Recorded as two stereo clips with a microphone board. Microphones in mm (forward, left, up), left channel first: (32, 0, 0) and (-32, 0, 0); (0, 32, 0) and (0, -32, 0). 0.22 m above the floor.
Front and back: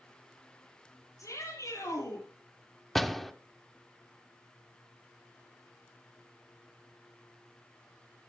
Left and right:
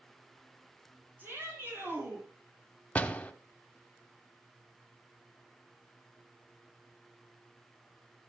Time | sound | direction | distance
1.2 | a shout | 30° right | 8.5 m
3.0 | a door slam | 85° left | 0.8 m